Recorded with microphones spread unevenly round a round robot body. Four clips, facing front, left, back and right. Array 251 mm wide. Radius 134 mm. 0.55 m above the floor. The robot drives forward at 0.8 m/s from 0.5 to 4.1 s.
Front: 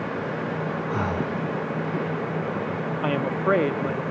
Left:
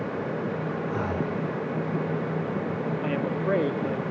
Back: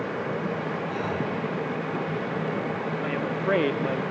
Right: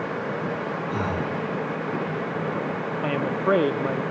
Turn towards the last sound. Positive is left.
turn(degrees=-165)